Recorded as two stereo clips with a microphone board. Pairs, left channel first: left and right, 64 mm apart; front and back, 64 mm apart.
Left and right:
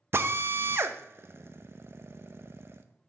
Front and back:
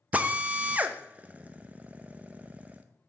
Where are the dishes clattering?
No dishes clattering in this recording.